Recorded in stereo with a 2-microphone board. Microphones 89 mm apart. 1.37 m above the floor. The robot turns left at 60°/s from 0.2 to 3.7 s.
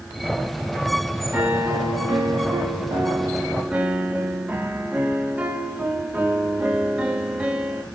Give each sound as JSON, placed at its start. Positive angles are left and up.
{"t": 1.3, "sound": "a piano", "azimuth_deg": -20, "distance_m": 1.3}